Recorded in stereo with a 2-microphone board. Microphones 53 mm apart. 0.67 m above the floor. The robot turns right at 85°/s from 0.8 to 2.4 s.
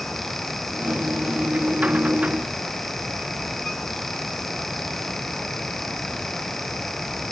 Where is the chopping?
No chopping in this recording.